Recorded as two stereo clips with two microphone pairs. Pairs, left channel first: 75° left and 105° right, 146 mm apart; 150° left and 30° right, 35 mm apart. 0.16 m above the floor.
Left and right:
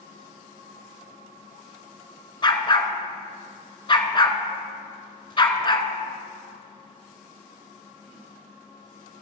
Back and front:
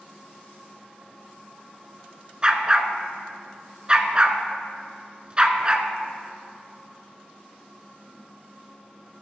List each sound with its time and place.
2.4 s a dog barking: 25° left, 0.7 m